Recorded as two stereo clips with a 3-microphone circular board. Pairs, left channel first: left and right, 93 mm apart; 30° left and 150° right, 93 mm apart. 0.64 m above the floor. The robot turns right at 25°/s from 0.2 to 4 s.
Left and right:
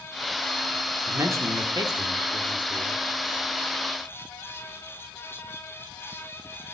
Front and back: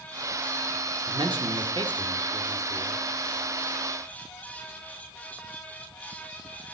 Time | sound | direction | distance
1.1 | a man speaking | 145° right | 1.4 m